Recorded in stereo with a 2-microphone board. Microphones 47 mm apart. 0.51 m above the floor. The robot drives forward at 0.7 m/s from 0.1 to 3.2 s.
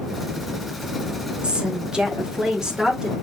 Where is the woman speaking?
20° right (ahead or behind), 1.1 m; by 3.1 s 10° right (ahead or behind), 1.8 m.